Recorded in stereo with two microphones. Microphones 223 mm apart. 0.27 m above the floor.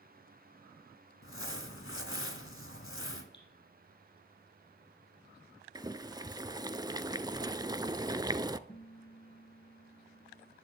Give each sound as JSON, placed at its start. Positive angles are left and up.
{"t": 1.2, "sound": "crumpling", "side_deg": 65, "distance_m": 1.7}
{"t": 3.3, "sound": "dripping", "side_deg": 55, "distance_m": 6.5}
{"t": 5.8, "sound": "boiling", "side_deg": -15, "distance_m": 0.5}
{"t": 8.7, "sound": "a guitar", "side_deg": 35, "distance_m": 1.7}